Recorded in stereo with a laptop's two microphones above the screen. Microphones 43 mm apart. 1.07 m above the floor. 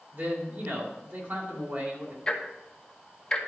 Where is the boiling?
No boiling in this recording.